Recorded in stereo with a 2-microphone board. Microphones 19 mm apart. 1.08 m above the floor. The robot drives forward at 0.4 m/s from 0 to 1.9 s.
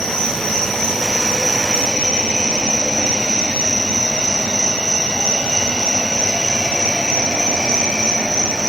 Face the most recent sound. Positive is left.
turn(degrees=30)  # may be behind; listen again after turning